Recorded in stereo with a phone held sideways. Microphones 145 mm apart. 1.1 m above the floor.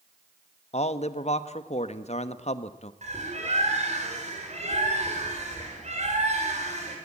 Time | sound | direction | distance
0.7 | a man speaking | 50° left (ahead or behind) | 1.1 m
3.0 | a bird | 50° right (ahead or behind) | 4.5 m